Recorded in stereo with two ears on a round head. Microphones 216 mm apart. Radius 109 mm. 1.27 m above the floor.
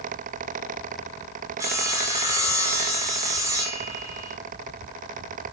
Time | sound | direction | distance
1.6 | sawing | 15° right (ahead or behind) | 1.1 m